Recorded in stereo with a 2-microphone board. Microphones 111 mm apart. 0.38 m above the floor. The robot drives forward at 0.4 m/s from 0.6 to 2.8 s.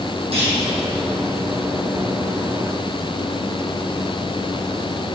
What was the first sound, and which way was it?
A clunk, 65° right (ahead or behind).